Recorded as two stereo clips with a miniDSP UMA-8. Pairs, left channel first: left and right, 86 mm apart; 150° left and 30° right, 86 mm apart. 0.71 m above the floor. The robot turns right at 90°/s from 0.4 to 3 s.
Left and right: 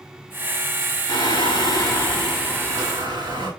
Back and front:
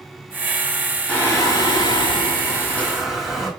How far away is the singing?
About 4.5 m.